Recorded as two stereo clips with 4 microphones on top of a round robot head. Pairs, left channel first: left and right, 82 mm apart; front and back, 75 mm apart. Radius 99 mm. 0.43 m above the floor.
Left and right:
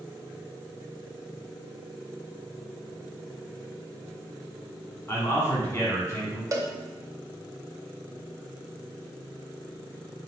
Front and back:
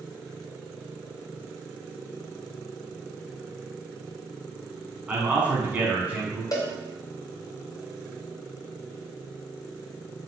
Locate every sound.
5.1 s a man speaking: 125° left, 1.4 m
6.5 s a cowbell: 40° right, 0.7 m